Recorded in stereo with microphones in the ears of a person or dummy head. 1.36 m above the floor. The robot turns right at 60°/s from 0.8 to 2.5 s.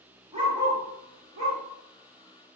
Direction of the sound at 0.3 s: 25° right (ahead or behind).